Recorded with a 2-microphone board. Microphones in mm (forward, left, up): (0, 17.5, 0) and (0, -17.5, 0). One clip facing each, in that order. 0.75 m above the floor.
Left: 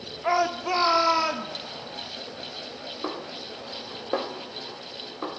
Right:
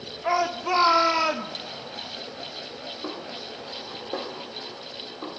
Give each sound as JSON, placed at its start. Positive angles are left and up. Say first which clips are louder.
{"t": 0.2, "sound": "a shout", "louder": "even", "side_deg": 15, "distance_m": 1.6}
{"t": 3.0, "sound": "a snare drum", "louder": "left 3 dB", "side_deg": 55, "distance_m": 1.1}